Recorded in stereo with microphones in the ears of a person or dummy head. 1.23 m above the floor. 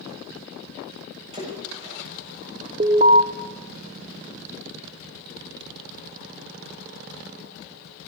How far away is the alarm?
About 1.4 m.